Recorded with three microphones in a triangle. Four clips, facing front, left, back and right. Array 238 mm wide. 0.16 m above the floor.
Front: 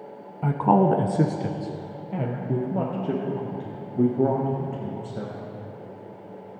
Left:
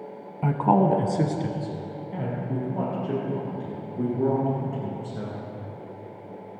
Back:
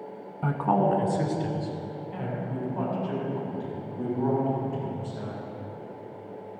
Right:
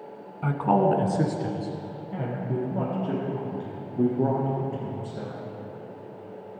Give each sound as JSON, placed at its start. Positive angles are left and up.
{"t": 0.4, "sound": "a woman speaking", "azimuth_deg": 65, "distance_m": 1.0}